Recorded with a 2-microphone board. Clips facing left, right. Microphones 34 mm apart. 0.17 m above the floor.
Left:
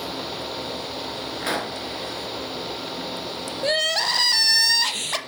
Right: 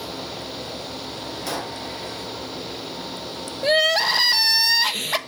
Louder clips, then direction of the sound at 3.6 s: Right 4 dB; 10° right (ahead or behind).